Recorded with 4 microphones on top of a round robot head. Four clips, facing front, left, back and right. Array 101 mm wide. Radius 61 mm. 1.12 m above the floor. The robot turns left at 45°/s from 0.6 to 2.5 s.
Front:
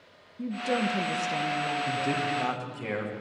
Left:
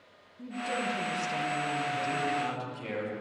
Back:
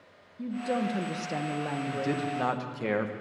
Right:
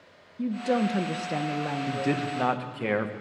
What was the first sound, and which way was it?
A woman speaking, 75° right.